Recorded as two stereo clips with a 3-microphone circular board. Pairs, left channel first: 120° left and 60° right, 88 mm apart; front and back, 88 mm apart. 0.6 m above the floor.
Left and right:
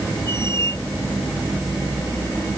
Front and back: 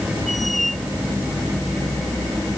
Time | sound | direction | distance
0.3 | a squeak | 90° right | ?